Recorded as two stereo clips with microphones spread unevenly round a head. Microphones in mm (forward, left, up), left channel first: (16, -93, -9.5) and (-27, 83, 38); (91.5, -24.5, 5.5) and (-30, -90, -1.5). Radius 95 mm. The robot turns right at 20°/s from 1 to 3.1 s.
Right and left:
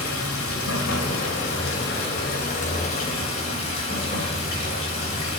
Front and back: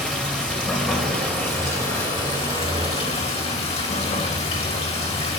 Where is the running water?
55° right, 2 m; by 5.4 s 15° right, 2 m.